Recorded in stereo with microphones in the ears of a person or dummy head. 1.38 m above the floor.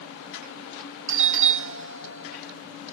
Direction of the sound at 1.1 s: 65° right (ahead or behind).